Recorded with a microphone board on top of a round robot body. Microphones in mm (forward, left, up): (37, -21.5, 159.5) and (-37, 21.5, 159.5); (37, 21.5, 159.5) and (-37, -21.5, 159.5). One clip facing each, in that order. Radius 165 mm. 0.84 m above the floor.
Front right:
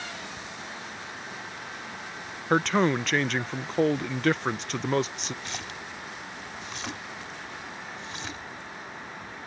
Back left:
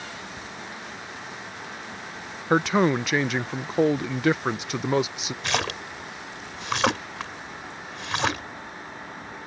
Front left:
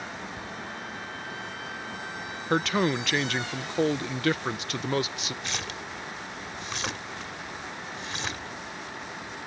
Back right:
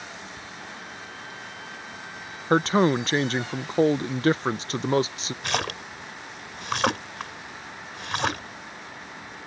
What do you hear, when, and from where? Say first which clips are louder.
2.5 s a man speaking: back left 2 dB, back right 5 dB; 135° right
5.4 s a splash: back left 10 dB, back right 6 dB; 175° left